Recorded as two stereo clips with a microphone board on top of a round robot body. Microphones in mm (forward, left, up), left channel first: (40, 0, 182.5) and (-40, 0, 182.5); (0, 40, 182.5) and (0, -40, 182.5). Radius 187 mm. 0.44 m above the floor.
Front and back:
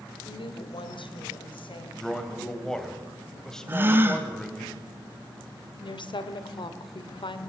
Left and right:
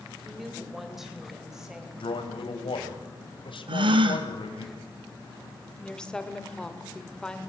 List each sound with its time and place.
0.2 s a woman speaking: straight ahead, 3 m; by 1.9 s 5° right, 4 m
2.0 s a man speaking: 85° left, 3 m
3.7 s a gasp: 115° right, 1.1 m
5.8 s a woman speaking: 10° left, 2.5 m